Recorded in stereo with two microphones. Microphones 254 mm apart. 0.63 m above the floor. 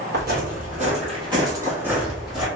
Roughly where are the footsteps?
Right.